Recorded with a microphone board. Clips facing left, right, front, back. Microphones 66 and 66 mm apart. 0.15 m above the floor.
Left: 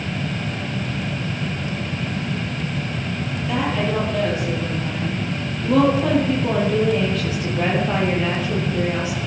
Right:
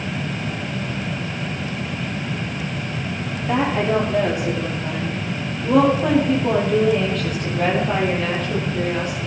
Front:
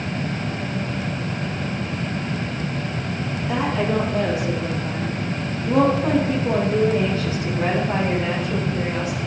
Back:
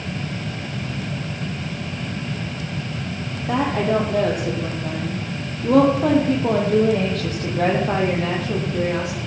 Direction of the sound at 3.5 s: 150° right.